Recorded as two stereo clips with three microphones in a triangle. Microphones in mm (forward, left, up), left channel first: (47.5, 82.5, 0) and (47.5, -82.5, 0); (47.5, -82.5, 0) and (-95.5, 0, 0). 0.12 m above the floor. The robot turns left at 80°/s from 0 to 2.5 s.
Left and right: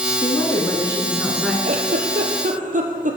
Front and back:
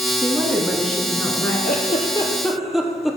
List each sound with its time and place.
0.2 s a woman speaking: 110° left, 1.2 m; by 1.5 s straight ahead, 1.2 m
1.6 s a giggle: 55° right, 1.0 m; by 3.2 s 120° right, 1.0 m